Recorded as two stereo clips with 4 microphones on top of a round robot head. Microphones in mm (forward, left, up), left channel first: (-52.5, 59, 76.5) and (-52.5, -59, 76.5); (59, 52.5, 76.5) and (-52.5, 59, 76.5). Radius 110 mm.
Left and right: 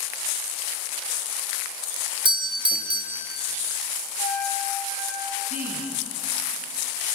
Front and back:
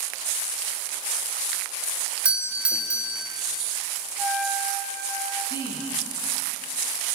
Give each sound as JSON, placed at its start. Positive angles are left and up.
{"t": 2.2, "sound": "a doorbell", "azimuth_deg": -105, "distance_m": 2.0}
{"t": 4.2, "sound": "a trumpet", "azimuth_deg": 80, "distance_m": 8.5}
{"t": 5.5, "sound": "a woman speaking", "azimuth_deg": -65, "distance_m": 7.0}